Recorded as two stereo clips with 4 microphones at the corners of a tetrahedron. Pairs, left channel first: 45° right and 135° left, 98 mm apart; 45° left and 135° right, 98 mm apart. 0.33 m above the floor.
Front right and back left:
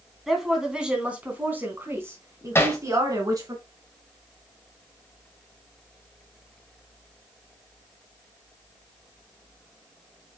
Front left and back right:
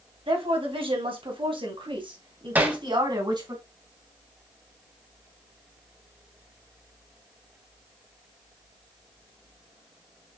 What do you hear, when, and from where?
0.3 s a woman speaking: 135° right, 2.5 m; by 3.5 s 175° right, 3 m
2.5 s hammering: 80° right, 1.4 m